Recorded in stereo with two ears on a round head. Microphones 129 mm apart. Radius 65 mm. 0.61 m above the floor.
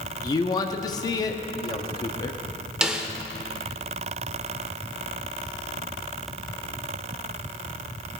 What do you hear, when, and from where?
0.2 s a man speaking: 25° left (ahead or behind), 0.7 m
2.8 s a snare drum: 5° right (ahead or behind), 0.8 m